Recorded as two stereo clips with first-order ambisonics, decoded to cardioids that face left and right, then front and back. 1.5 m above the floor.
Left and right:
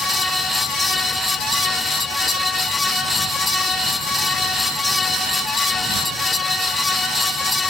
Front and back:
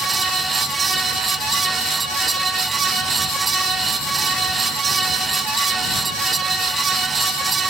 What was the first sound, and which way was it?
Only background noise.